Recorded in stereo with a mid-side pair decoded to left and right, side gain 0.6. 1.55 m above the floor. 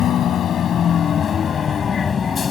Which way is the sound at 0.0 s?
50° left.